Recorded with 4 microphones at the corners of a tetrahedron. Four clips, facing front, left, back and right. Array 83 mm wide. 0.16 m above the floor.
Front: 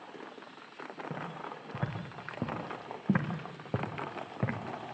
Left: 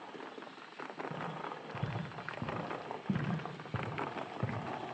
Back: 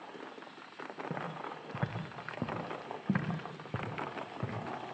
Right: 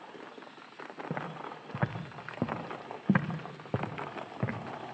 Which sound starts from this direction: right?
Footsteps, at 1.1 s.